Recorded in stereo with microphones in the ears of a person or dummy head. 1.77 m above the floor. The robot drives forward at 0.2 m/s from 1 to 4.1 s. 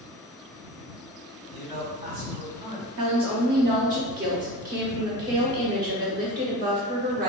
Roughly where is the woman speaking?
Right.